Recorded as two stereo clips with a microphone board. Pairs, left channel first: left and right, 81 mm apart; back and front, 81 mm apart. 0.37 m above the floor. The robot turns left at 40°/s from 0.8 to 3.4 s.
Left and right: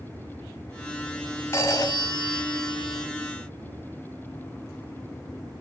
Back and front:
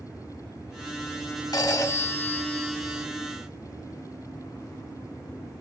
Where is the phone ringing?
145° left, 2.0 m; by 3.1 s 80° left, 2.0 m.